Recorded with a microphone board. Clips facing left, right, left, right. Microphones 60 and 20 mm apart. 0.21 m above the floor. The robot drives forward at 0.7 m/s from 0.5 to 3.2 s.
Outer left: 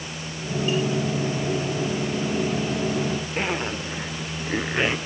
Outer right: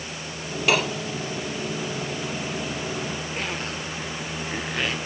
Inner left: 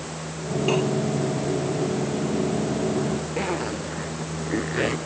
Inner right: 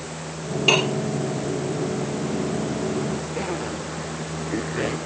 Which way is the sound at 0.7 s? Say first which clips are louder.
Outer right 3 dB, inner right 5 dB; 80° right.